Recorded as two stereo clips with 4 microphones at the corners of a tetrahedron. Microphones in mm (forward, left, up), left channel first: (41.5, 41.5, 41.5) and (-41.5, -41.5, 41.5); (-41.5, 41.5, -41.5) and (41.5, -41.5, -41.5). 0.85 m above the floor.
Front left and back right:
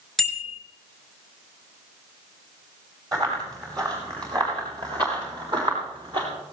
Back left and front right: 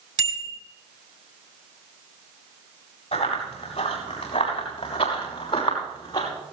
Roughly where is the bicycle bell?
Ahead right.